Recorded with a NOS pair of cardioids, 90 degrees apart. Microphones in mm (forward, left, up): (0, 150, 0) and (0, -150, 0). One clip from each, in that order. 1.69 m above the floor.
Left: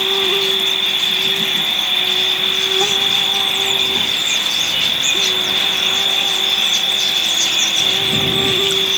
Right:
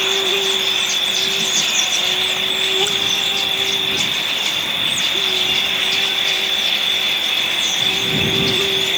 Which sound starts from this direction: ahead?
An insect, at 0.0 s.